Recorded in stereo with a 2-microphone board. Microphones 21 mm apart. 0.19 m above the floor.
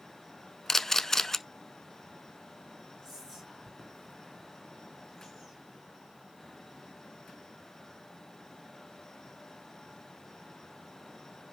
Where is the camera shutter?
25° left (ahead or behind), 0.6 m.